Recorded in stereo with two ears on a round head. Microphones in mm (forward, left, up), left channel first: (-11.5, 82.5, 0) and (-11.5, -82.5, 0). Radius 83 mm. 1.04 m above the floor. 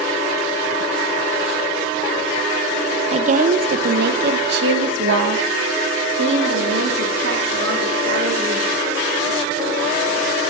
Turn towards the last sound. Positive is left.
turn(degrees=-70)  # may be behind; listen again after turning